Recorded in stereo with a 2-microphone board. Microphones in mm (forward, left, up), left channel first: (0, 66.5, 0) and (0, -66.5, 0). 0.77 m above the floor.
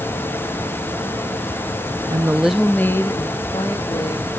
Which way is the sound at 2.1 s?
25° right (ahead or behind).